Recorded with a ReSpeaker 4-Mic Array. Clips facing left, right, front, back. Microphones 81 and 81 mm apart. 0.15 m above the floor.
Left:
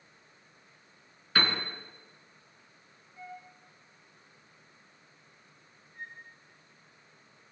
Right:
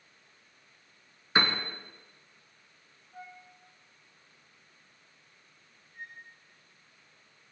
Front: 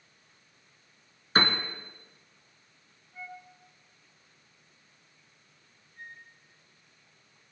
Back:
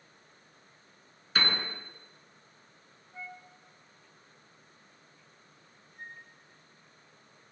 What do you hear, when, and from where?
1.4 s a piano: 35° right, 2 m
3.1 s a flute: 105° right, 4.5 m
5.9 s a flute: straight behind, 9 m